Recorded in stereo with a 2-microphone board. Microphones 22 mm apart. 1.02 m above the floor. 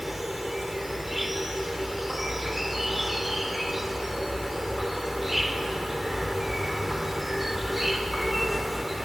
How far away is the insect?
About 1.4 m.